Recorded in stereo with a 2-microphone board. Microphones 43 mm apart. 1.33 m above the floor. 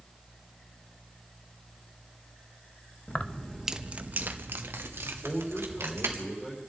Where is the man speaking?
15° left (ahead or behind), 5.5 m.